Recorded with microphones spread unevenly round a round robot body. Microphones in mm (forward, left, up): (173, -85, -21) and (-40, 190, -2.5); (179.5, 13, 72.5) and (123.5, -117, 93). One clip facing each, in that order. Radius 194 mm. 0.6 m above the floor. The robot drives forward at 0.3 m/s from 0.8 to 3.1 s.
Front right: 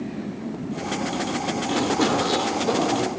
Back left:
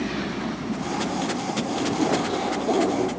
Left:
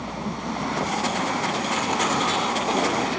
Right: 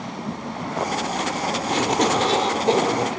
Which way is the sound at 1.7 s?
125° right.